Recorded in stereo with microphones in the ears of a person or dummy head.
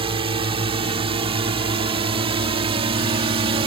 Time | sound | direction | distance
0.0 | a drone | 35° right (ahead or behind) | ?